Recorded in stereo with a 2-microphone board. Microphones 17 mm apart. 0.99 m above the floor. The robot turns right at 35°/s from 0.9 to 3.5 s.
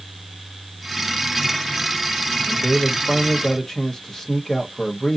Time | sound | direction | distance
2.4 | a man speaking | 15° right | 1.2 m